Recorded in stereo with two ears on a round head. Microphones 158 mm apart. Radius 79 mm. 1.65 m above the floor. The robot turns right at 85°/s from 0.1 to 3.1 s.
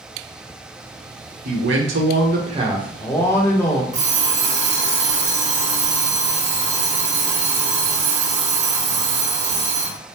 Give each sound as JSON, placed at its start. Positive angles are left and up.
{"t": 1.4, "sound": "a man speaking", "azimuth_deg": -130, "distance_m": 1.0}
{"t": 3.9, "sound": "an alarm clock", "side_deg": -40, "distance_m": 1.5}